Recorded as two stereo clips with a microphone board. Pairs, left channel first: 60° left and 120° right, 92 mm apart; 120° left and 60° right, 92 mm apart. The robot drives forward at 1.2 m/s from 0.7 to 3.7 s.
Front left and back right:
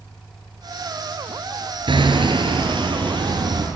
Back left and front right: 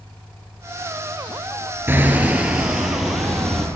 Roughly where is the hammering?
Behind right.